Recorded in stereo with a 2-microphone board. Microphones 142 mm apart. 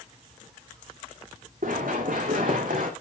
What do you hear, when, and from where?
1.6 s running footsteps: 75° right (ahead or behind), 3 m; by 2.9 s 80° right, 2 m